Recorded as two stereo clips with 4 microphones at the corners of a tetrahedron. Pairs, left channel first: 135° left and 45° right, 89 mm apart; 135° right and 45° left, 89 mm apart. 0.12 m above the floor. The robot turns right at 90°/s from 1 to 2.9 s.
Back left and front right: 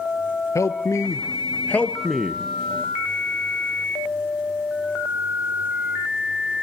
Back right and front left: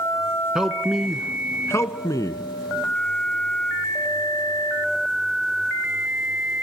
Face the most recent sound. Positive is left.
turn(degrees=-65)